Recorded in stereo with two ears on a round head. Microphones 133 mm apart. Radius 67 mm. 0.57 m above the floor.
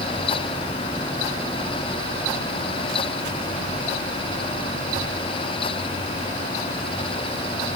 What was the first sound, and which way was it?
Only background noise.